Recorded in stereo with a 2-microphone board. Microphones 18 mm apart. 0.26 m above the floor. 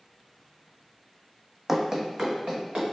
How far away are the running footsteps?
About 0.6 m.